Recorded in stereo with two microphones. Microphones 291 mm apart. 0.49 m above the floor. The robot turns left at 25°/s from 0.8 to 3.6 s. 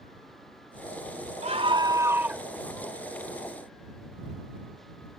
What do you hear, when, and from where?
1.4 s a scream: 25° right (ahead or behind); by 2.4 s centre (ahead or behind)